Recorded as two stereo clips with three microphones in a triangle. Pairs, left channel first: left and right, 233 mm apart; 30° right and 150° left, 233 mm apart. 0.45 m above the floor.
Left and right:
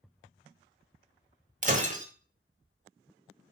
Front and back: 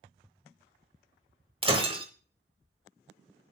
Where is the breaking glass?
145° right, 1.2 m.